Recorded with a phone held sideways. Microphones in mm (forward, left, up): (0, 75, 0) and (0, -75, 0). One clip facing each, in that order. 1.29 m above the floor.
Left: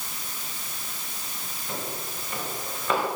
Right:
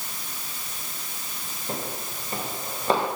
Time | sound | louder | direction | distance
1.7 | footsteps | right 2 dB | 40° right (ahead or behind) | 8.5 m